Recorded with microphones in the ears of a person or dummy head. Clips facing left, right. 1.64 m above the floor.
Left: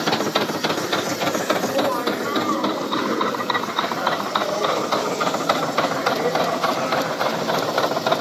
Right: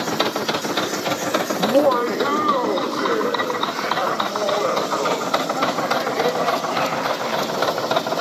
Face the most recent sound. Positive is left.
turn(degrees=-60)  # may be behind; listen again after turning